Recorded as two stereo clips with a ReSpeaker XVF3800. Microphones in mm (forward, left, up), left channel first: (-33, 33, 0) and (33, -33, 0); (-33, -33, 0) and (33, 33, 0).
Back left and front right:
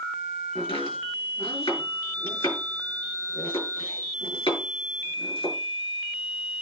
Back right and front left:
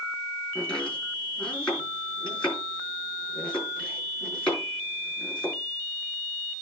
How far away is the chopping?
About 7.5 m.